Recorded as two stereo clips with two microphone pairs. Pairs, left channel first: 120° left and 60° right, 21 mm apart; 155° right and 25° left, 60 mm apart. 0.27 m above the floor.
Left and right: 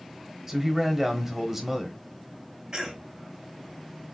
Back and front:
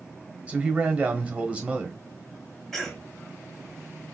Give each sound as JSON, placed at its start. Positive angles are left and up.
{"t": 0.5, "sound": "a man speaking", "azimuth_deg": -10, "distance_m": 1.2}
{"t": 2.7, "sound": "a cough", "azimuth_deg": -75, "distance_m": 1.5}